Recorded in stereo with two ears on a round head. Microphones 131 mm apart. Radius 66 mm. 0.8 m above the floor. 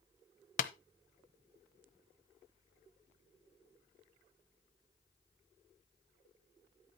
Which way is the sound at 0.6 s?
55° left (ahead or behind).